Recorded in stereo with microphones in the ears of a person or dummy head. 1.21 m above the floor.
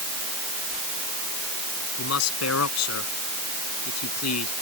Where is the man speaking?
85° left.